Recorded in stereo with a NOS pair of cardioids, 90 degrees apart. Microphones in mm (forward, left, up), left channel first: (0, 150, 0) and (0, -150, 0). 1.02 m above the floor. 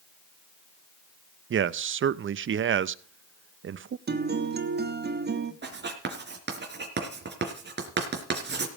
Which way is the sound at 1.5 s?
45° right.